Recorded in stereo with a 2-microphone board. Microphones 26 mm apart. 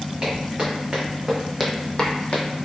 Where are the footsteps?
45° right (ahead or behind), 1.8 m; by 2.5 s 65° left (ahead or behind), 0.8 m.